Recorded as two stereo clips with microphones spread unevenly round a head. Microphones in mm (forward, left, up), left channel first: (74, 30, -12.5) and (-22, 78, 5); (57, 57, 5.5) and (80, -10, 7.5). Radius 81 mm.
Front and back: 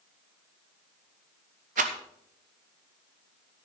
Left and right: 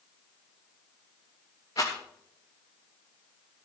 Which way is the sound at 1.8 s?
175° left.